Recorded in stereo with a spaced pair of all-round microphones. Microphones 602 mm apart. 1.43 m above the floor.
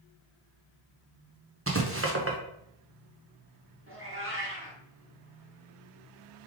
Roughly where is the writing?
Right.